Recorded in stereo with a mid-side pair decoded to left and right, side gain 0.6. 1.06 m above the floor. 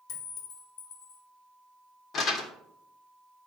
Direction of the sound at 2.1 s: 50° left.